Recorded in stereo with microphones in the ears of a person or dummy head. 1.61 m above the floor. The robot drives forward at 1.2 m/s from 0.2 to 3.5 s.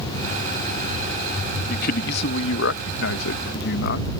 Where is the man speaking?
50° left (ahead or behind); by 4.1 s 65° left (ahead or behind).